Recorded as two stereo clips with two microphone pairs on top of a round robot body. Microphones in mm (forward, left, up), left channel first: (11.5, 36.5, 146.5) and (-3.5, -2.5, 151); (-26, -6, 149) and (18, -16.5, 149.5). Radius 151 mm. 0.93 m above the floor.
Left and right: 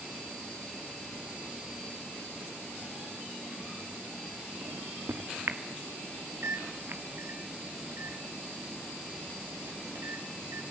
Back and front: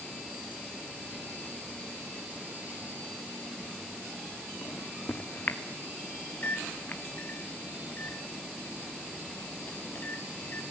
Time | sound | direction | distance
4.6 | a microwave | 140° right | 2 m